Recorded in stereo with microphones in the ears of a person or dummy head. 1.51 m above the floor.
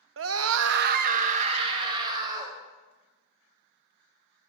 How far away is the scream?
About 0.6 m.